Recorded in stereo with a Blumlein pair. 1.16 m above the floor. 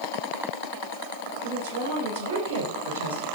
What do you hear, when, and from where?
1.4 s a woman speaking: 55° right, 4.5 m; by 3.2 s 70° right, 4.5 m